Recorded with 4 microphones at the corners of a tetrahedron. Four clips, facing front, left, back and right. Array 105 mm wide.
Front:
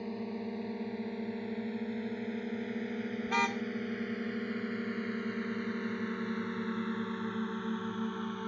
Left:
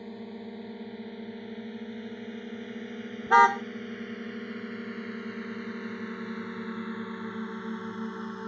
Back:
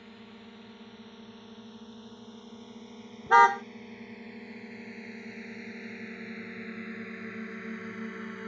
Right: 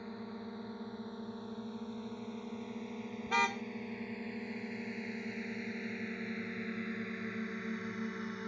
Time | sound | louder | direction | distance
0.0 | a drone | left 4 dB, front 11 dB | 30° left | ?
3.3 | a car horn | left 14 dB, back 14 dB | 135° left | ?